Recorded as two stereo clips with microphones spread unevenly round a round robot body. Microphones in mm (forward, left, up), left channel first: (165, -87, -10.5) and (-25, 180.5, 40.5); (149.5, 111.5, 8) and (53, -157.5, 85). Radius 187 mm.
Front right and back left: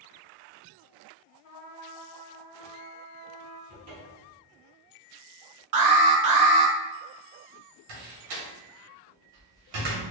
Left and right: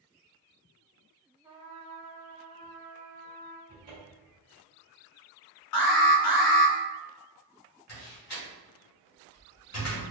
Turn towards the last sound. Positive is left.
turn(degrees=125)